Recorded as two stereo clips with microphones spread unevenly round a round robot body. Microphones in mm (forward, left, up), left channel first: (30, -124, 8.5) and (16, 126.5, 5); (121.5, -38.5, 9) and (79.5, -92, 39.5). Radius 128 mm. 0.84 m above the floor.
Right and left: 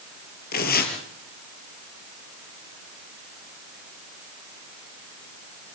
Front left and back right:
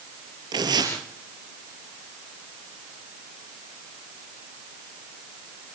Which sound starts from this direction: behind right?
Tearing paper, at 0.5 s.